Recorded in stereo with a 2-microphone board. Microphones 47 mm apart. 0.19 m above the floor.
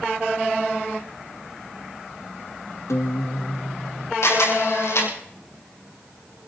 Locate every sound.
2.9 s a guitar: 85° left, 1.7 m
4.2 s a camera shutter: 80° left, 6 m